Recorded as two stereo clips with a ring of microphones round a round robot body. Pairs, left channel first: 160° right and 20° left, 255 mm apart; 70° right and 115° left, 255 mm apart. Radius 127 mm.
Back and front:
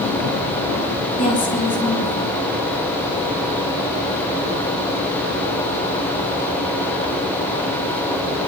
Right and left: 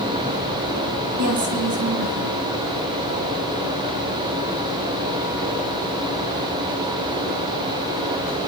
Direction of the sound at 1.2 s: 145° left.